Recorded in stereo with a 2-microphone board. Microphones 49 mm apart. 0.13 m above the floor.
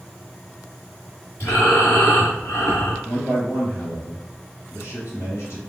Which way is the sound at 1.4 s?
50° left (ahead or behind).